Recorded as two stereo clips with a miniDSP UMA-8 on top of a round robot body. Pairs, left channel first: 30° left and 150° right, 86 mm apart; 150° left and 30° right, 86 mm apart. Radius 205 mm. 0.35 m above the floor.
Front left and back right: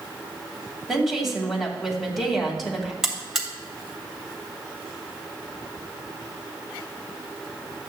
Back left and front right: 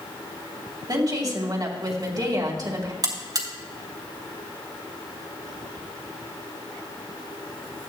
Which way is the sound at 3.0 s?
65° right.